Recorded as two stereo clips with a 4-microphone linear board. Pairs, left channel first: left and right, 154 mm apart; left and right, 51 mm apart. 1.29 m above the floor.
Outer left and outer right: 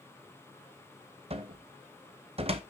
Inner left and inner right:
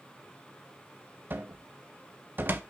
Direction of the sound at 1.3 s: 40° right (ahead or behind).